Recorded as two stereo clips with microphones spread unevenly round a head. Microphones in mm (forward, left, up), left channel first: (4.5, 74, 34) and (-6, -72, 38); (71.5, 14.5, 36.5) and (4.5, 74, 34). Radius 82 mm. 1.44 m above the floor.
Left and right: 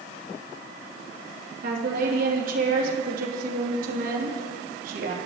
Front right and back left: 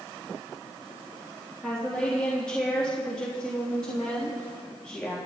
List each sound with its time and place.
1.6 s a woman speaking: 125° right, 3 m